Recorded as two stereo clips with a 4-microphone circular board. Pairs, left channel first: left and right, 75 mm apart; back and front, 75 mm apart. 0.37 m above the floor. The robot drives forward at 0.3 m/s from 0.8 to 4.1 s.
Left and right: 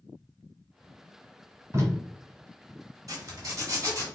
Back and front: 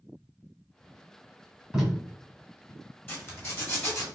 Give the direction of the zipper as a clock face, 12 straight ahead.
4 o'clock.